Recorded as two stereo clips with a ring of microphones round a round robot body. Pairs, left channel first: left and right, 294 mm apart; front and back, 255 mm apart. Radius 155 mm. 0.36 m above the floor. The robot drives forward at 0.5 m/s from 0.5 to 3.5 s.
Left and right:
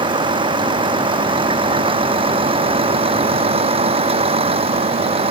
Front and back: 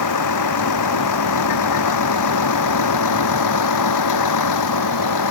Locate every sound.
0.0 s a vehicle: 15° right; by 5.3 s 20° right